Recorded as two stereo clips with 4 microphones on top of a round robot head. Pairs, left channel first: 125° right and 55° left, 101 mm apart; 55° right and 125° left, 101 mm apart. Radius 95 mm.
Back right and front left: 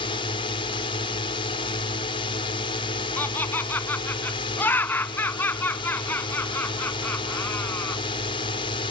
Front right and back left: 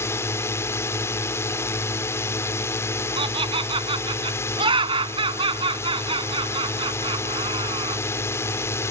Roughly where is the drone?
Behind right.